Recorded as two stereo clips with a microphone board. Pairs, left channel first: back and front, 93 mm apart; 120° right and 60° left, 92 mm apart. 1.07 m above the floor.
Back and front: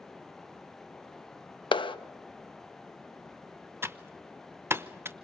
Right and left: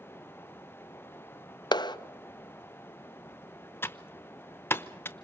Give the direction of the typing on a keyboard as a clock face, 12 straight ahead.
2 o'clock.